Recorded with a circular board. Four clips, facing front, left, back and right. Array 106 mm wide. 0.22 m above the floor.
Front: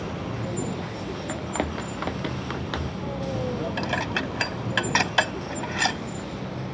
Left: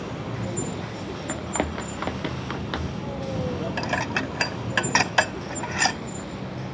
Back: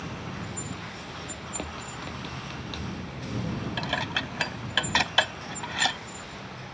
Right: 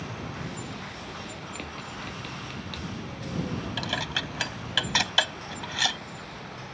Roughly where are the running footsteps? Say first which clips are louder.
Left 11 dB, front 10 dB; ahead left.